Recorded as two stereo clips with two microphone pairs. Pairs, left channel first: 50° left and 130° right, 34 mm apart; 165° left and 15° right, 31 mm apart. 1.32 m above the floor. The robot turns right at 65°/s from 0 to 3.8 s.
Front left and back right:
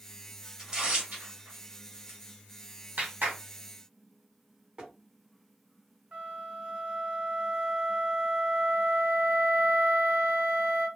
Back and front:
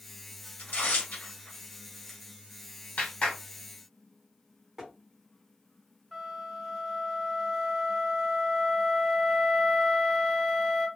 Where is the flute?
105° right, 1.4 m.